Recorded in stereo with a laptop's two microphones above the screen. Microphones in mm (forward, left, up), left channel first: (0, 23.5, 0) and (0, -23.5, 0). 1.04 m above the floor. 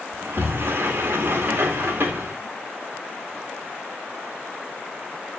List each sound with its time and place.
0.1 s a sliding door: 55° right (ahead or behind), 2.5 m